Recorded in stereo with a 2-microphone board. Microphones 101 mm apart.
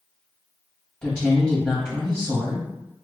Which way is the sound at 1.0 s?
20° left (ahead or behind).